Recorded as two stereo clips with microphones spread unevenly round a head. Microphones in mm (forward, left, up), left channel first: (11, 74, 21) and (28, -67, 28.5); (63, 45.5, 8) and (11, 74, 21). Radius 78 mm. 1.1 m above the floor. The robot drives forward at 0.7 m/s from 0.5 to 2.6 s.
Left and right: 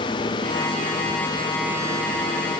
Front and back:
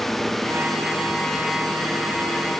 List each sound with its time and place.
Only background noise.